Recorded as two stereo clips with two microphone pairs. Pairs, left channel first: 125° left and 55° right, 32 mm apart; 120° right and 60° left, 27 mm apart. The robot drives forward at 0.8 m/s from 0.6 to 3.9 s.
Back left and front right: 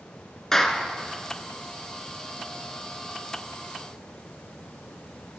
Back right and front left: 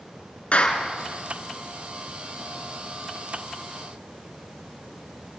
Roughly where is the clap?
Behind.